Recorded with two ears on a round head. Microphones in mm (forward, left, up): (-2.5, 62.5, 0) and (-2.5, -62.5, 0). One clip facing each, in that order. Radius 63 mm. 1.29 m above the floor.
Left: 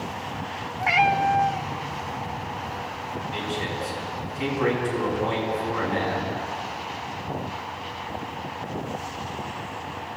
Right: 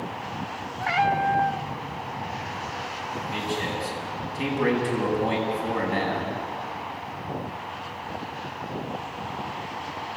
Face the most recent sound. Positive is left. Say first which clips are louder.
# right 2 dB
turn(degrees=-45)  # may be behind; listen again after turning